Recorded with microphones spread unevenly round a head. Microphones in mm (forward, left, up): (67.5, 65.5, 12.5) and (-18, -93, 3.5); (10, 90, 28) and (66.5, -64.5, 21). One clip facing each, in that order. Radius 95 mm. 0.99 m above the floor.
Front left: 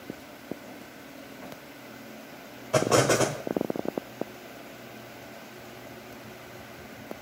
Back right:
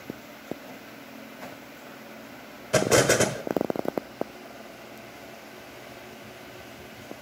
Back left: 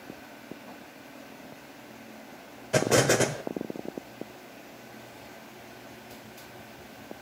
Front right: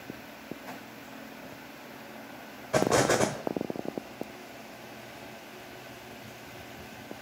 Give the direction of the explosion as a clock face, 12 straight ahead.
6 o'clock.